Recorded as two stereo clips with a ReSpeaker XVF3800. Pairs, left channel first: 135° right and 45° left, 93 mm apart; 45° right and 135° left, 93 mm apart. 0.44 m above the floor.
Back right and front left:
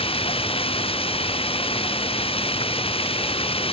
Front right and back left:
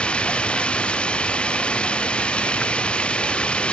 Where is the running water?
125° right.